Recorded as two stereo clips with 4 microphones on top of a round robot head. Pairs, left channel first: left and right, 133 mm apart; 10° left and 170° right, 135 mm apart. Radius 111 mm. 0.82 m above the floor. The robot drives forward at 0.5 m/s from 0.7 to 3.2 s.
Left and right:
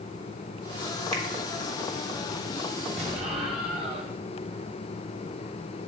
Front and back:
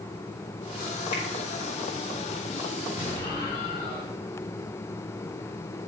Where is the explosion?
50° right, 2.5 m.